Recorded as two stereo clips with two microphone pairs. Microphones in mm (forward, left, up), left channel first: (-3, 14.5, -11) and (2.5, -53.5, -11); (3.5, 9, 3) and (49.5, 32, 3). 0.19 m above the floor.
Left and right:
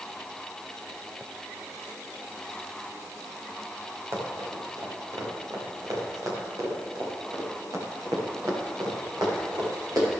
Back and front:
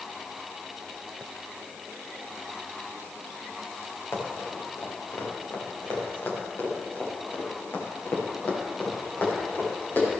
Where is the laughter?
No laughter in this recording.